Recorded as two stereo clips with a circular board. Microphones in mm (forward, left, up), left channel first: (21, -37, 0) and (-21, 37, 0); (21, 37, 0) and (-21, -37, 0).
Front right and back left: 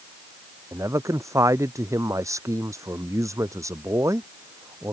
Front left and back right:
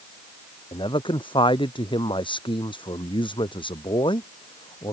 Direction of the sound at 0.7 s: 70° left.